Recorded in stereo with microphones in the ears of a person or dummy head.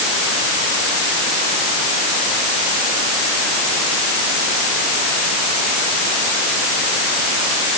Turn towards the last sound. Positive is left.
No sound to turn to.